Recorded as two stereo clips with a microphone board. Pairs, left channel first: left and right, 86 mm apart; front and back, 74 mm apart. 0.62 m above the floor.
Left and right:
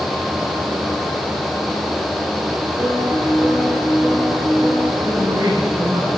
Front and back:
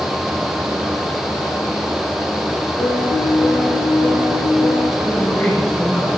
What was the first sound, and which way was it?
A piano, 30° right.